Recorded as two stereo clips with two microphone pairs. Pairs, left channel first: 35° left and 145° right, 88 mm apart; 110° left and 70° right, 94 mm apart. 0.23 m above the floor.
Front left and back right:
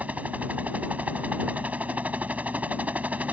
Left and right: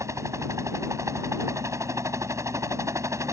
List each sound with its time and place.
0.0 s a helicopter: 85° right